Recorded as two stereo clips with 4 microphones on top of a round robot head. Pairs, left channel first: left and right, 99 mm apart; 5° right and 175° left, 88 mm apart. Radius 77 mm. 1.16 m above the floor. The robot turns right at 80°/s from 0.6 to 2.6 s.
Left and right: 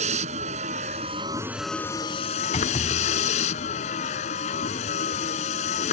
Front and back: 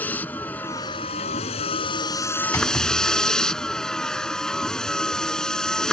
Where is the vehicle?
85° right; by 5.9 s 75° left.